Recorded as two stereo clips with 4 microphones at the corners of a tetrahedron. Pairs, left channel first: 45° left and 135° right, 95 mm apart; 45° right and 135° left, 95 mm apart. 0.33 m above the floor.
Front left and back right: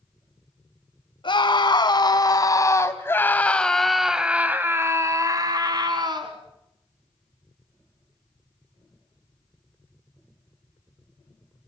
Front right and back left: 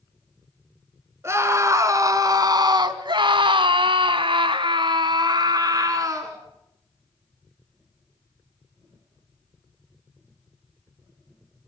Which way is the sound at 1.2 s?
75° left.